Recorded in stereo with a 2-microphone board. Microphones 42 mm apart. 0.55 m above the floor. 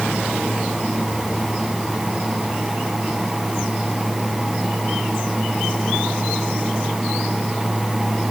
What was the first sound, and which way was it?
Only background noise.